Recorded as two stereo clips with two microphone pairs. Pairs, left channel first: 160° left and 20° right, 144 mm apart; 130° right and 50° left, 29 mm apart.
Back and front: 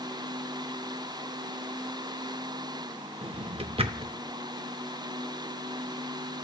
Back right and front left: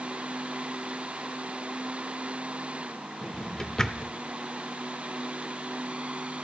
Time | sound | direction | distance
3.2 | a drawer | 60° right | 0.5 m